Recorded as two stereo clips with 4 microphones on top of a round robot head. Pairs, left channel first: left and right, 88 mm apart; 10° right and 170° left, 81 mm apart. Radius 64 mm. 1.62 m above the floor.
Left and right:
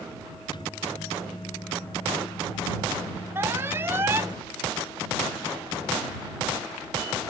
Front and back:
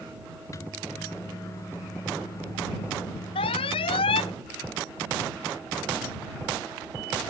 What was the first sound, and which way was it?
A microwave, 40° left.